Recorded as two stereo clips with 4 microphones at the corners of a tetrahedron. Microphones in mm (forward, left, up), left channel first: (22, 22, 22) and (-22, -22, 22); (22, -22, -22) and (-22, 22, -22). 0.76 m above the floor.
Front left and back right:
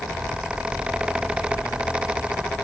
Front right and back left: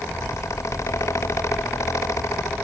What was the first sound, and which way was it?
Only background noise.